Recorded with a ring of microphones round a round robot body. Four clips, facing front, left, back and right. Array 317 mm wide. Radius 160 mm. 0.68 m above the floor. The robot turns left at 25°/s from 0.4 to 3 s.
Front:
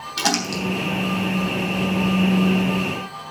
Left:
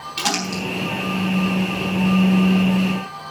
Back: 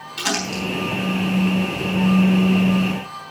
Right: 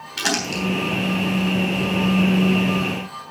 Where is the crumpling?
15° right, 3.5 m; by 0.6 s 25° right, 3.5 m.